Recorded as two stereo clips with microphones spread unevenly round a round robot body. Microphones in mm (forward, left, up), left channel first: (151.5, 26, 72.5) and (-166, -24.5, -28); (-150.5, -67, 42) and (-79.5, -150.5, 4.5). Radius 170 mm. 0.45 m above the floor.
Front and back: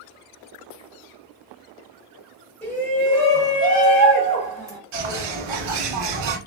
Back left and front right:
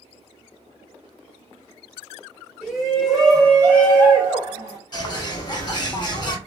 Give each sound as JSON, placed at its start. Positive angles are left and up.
{"t": 2.6, "sound": "a shout", "azimuth_deg": -100, "distance_m": 1.6}
{"t": 4.9, "sound": "a bird", "azimuth_deg": 180, "distance_m": 0.9}